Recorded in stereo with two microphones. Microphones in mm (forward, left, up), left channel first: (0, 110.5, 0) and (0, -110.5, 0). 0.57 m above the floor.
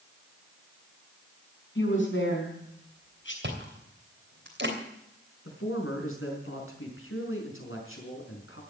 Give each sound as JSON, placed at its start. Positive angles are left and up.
{"t": 1.8, "sound": "a woman speaking", "side_deg": 65, "distance_m": 5.5}
{"t": 3.4, "sound": "chewing", "side_deg": -60, "distance_m": 3.0}
{"t": 5.5, "sound": "a man speaking", "side_deg": 80, "distance_m": 5.0}